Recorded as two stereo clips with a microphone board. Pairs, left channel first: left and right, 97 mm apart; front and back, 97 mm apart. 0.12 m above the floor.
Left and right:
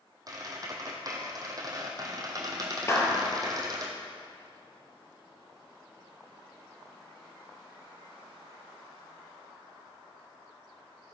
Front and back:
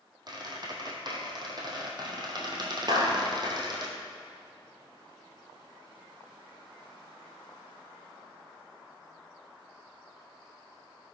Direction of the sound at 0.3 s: 140° right.